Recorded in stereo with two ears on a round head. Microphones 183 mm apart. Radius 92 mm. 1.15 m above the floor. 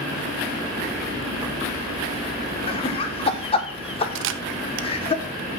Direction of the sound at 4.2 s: 65° right (ahead or behind).